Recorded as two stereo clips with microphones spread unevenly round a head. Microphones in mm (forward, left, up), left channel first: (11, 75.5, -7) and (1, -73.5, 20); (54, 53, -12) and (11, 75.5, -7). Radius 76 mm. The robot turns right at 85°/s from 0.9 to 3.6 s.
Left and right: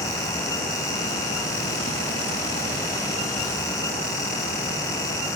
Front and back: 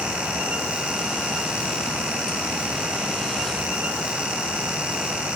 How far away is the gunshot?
No gunshot in this recording.